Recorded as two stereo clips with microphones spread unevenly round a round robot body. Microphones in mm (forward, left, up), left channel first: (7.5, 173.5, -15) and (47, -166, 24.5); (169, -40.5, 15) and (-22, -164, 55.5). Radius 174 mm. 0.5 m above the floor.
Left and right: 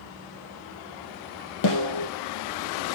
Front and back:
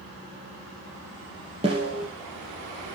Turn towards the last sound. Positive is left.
turn(degrees=140)